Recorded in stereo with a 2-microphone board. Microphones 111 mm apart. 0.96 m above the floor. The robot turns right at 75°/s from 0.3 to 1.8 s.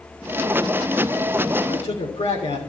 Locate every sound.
1.7 s a man speaking: 75° left (ahead or behind), 3 m; by 2.6 s 70° left (ahead or behind), 3 m